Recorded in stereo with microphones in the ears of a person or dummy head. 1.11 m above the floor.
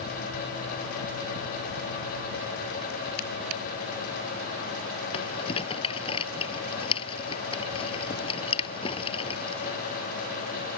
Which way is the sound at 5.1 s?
30° left (ahead or behind).